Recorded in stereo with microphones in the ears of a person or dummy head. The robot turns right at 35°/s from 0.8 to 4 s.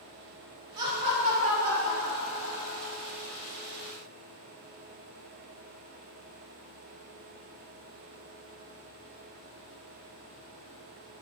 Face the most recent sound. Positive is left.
turn(degrees=-40)